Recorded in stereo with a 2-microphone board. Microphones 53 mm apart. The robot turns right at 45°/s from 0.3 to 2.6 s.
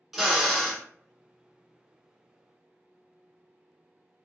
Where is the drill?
Centre (ahead or behind), 0.7 m; by 0.8 s 15° left (ahead or behind), 0.7 m.